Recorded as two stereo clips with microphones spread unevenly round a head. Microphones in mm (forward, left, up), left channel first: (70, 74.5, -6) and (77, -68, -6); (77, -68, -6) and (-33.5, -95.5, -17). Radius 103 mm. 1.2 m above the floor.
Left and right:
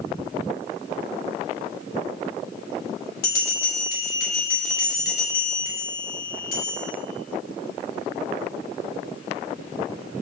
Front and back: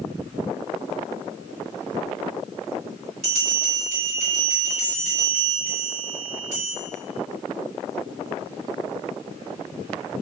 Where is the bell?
130° left, 1.6 m.